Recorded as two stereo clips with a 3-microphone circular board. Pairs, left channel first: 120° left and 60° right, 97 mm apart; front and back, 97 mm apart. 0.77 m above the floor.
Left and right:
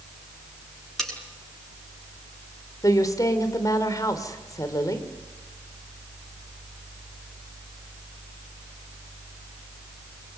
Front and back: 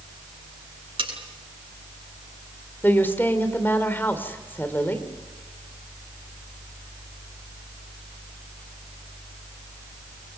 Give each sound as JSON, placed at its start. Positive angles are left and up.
{"t": 1.0, "sound": "cutlery clinking", "azimuth_deg": -155, "distance_m": 6.0}
{"t": 2.8, "sound": "a woman speaking", "azimuth_deg": 70, "distance_m": 3.0}